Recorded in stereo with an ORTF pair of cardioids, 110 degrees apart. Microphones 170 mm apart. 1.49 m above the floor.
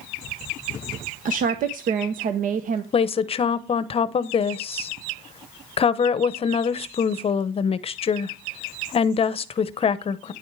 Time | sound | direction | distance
1.2 | a woman speaking | 55° right | 0.9 m
2.9 | a woman speaking | 35° left | 0.8 m